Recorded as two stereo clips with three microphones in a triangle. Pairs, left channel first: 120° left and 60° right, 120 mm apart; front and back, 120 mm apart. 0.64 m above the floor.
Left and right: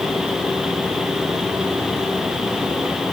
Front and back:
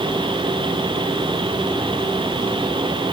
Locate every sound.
Only background noise.